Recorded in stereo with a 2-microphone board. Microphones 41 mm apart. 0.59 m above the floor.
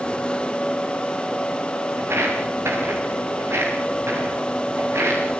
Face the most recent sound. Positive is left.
turn(degrees=-80)